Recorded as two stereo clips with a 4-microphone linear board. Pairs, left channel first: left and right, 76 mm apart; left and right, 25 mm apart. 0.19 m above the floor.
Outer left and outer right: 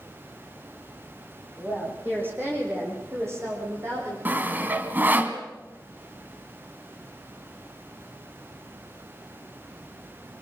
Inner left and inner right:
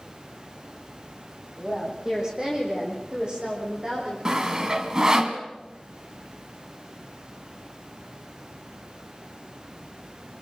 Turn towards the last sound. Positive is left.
turn(degrees=-25)  # may be behind; listen again after turning